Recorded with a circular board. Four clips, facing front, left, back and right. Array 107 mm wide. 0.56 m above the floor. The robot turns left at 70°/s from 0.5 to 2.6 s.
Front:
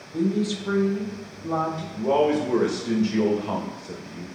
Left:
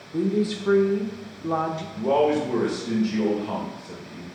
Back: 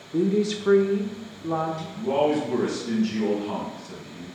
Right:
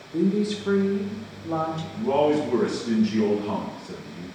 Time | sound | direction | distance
0.1 | a woman speaking | straight behind | 1.1 m
1.9 | a man speaking | 60° left | 2 m